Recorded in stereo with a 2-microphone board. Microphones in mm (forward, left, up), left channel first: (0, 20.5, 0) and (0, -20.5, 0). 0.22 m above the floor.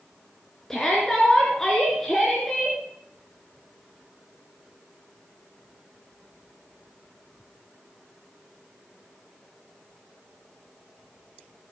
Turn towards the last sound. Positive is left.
turn(degrees=10)  # may be behind; listen again after turning